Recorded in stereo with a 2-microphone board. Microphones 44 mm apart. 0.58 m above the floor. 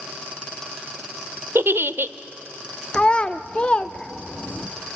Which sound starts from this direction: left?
A child speaking, at 2.9 s.